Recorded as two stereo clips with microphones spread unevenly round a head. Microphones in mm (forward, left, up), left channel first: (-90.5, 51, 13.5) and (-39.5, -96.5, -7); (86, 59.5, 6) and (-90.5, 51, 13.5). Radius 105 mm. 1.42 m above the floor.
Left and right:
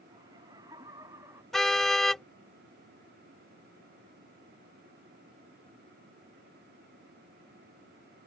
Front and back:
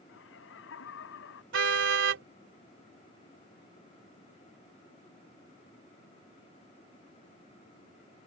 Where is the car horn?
165° right.